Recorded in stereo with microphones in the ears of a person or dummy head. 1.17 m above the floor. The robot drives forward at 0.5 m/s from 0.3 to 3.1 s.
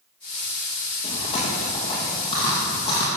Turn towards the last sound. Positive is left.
turn(degrees=30)  # may be behind; listen again after turning